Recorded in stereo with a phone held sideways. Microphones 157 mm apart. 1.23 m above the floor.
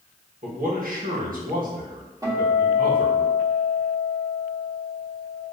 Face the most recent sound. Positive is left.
turn(degrees=-25)  # may be behind; listen again after turning